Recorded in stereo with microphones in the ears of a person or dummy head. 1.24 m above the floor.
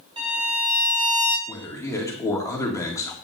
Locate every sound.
0.2 s a violin: 25° right (ahead or behind), 1.6 m
1.5 s a man speaking: 20° left (ahead or behind), 2.0 m